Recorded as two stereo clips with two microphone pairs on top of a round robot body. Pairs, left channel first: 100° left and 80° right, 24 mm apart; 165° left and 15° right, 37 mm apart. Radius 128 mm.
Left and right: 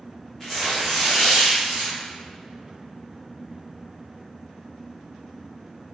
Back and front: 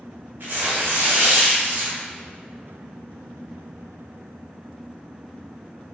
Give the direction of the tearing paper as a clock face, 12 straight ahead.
12 o'clock.